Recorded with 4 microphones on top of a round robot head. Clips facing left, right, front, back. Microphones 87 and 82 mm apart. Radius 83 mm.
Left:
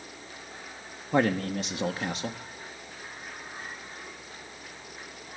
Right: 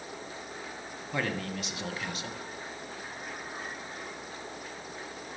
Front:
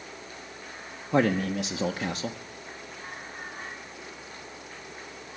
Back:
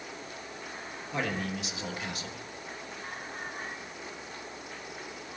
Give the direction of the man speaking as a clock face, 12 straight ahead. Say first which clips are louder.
Left 8 dB, front 9 dB; 11 o'clock.